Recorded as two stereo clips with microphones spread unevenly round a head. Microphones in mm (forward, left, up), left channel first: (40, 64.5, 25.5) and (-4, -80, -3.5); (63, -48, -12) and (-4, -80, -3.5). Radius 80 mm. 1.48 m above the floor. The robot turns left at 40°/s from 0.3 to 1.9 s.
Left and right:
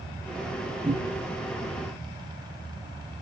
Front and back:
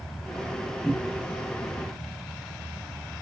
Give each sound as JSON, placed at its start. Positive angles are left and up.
{"t": 0.8, "sound": "a cupboard door", "azimuth_deg": -50, "distance_m": 1.5}